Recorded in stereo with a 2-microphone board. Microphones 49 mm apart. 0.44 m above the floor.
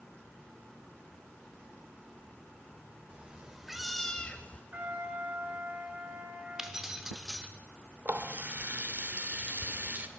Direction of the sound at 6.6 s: 10° right (ahead or behind).